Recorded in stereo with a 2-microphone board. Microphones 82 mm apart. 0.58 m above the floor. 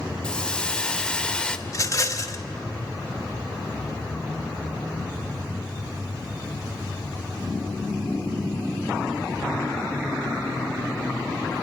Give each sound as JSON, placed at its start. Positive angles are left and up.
{"t": 0.2, "sound": "a hiss", "side_deg": 10, "distance_m": 0.8}
{"t": 1.7, "sound": "a rattle", "side_deg": 40, "distance_m": 0.9}